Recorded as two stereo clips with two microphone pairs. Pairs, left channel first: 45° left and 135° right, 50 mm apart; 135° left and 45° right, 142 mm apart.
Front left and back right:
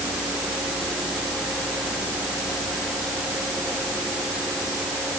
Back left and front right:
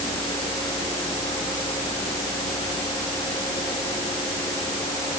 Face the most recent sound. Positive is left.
No sound to turn to.